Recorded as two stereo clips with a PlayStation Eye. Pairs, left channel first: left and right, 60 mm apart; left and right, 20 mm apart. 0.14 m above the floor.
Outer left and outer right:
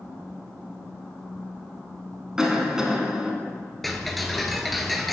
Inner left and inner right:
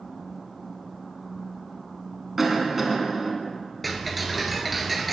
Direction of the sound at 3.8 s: Centre (ahead or behind).